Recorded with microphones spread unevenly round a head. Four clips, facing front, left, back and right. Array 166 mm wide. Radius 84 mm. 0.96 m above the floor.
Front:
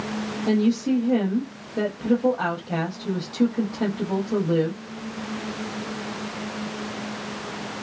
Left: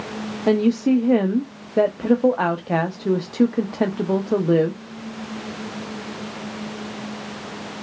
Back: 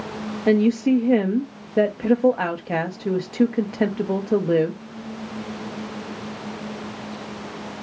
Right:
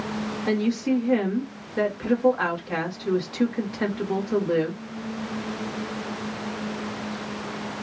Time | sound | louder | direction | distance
0.5 | a woman speaking | left 7 dB, back 4 dB | 125° left | 0.8 m